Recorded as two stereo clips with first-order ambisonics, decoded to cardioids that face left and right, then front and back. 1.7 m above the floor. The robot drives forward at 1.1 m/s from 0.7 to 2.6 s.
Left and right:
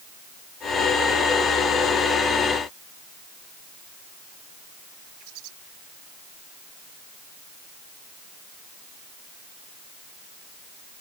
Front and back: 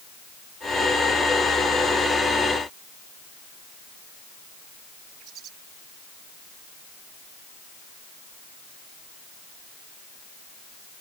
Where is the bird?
125° right.